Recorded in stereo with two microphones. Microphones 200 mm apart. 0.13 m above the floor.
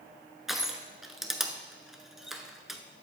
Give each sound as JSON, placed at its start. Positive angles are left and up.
{"t": 0.5, "sound": "crushing", "side_deg": 0, "distance_m": 0.7}